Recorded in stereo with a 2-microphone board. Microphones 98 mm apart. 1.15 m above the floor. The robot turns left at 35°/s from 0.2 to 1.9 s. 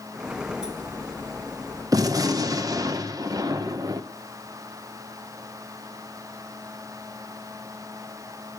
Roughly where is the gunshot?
Right.